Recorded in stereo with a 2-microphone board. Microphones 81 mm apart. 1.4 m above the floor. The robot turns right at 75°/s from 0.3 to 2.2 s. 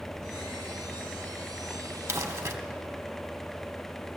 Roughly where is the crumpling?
Right.